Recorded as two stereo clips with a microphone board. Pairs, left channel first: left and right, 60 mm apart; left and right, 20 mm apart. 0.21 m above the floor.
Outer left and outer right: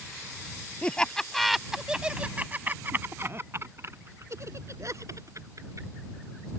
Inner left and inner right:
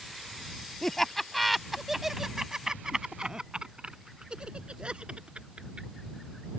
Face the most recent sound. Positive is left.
turn(degrees=-65)  # may be behind; listen again after turning